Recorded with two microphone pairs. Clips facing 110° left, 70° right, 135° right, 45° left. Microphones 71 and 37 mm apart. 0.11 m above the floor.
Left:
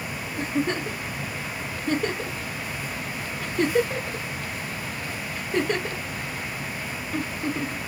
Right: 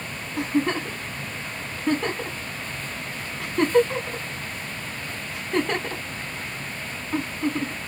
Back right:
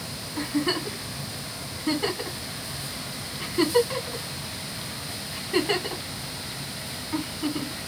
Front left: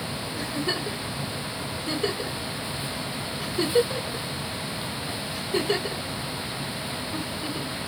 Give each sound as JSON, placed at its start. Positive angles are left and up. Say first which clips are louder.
{"t": 0.4, "sound": "a giggle", "louder": "right 3 dB, back right 4 dB", "azimuth_deg": -80, "distance_m": 3.0}